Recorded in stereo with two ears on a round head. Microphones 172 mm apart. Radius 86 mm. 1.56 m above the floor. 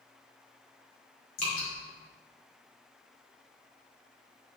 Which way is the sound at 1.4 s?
45° left (ahead or behind).